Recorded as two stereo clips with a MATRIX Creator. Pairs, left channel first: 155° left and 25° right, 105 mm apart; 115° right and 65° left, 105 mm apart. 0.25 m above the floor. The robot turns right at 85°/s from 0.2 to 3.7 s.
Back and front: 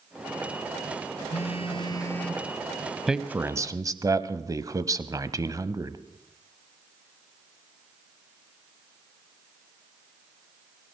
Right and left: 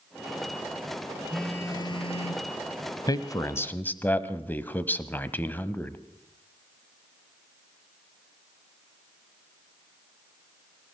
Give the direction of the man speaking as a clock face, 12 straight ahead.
3 o'clock.